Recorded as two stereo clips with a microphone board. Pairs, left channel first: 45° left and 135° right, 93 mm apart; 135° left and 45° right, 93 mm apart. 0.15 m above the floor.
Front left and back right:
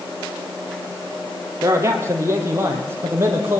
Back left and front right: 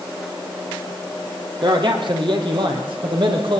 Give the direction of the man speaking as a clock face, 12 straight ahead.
3 o'clock.